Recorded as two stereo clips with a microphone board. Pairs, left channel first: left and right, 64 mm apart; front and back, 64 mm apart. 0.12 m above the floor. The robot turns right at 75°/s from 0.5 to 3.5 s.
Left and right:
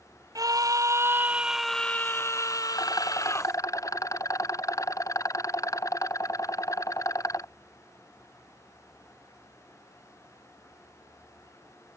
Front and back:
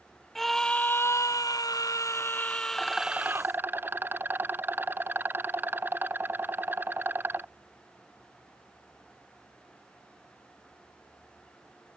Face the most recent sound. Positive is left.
turn(degrees=120)